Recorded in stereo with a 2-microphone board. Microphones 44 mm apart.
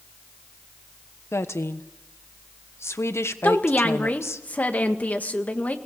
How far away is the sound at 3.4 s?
About 1.8 m.